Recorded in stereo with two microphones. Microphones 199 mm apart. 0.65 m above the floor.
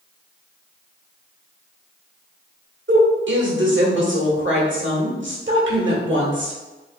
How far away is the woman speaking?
About 1.7 m.